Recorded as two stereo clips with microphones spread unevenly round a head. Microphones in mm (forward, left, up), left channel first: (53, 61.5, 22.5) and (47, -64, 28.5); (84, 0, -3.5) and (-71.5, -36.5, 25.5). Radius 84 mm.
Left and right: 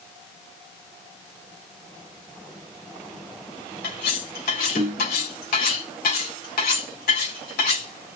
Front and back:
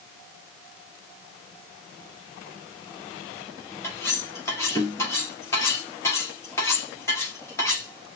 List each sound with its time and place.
3.8 s cutlery clinking: 90° left, 3.5 m